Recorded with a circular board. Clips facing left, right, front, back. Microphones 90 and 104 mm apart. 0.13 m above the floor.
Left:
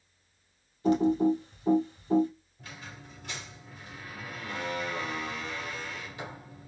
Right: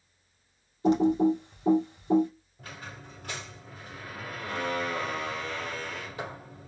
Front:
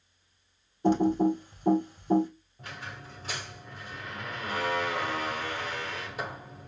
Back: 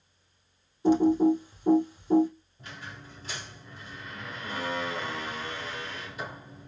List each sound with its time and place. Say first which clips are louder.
0.8 s typing on a keyboard: right 1 dB, back 3 dB; 30° right, 2.5 m
2.6 s a squeak: right 3 dB, front 2 dB; 40° right, 3 m